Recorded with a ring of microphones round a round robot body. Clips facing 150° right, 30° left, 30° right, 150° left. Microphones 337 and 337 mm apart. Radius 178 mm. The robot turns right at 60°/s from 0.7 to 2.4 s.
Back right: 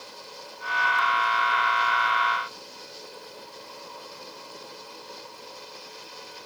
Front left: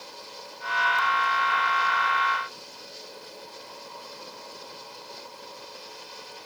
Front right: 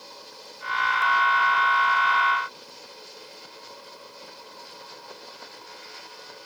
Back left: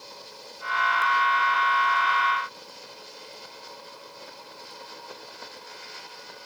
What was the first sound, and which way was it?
Only background noise.